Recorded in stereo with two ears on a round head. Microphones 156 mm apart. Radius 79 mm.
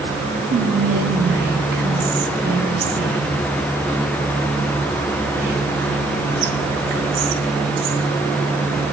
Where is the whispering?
50° right (ahead or behind), 0.8 m.